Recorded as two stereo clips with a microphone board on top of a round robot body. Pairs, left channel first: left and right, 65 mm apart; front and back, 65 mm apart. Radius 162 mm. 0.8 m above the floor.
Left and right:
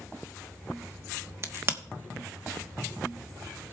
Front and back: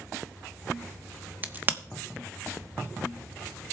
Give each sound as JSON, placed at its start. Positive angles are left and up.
{"t": 1.4, "sound": "a crack", "azimuth_deg": -125, "distance_m": 1.2}